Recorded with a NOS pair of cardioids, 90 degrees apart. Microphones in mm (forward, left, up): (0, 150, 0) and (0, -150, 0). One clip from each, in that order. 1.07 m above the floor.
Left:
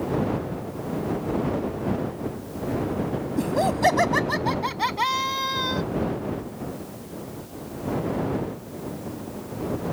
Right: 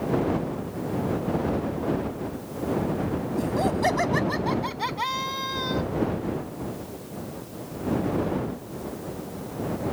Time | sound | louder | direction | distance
3.4 | laughter | left 3 dB | 30° left | ?